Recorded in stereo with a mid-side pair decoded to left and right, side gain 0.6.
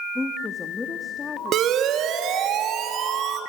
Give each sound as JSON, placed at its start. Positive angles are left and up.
{"t": 0.1, "sound": "a woman speaking", "azimuth_deg": 20, "distance_m": 1.5}
{"t": 1.5, "sound": "a siren", "azimuth_deg": -55, "distance_m": 2.5}